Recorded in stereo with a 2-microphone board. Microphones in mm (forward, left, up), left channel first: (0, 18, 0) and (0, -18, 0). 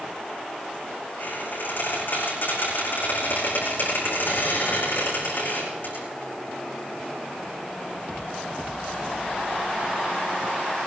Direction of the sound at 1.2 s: 65° left (ahead or behind).